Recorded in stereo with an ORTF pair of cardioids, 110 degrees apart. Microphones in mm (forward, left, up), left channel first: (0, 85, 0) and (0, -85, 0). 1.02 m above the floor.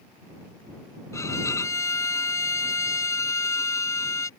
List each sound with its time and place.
1.1 s a violin: 15° left